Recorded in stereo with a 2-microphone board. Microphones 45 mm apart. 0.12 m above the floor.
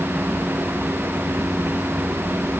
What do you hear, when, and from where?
Only background noise.